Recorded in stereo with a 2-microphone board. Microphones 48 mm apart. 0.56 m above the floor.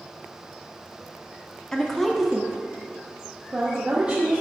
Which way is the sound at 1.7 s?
15° left (ahead or behind).